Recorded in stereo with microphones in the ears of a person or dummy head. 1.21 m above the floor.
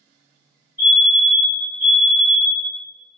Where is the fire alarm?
10° right (ahead or behind), 0.9 m.